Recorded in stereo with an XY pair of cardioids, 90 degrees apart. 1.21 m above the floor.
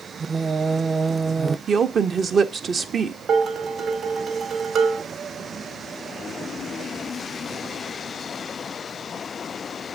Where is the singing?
35° right, 0.7 m.